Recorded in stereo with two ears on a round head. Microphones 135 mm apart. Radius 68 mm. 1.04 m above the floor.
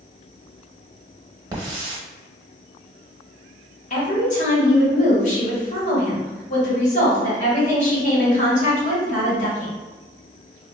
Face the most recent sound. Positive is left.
turn(degrees=50)  # may be behind; listen again after turning